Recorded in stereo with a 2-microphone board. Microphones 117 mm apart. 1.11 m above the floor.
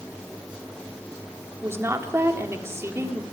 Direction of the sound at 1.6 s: 20° right (ahead or behind).